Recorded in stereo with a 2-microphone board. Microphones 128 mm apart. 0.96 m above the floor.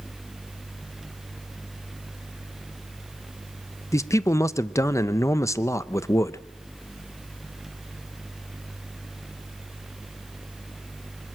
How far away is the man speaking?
About 0.7 m.